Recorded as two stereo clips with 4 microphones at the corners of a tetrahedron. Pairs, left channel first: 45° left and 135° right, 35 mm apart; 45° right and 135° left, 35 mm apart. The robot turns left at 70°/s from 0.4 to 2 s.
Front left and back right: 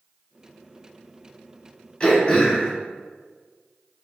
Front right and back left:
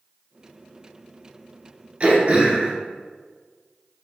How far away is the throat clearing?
About 1.0 m.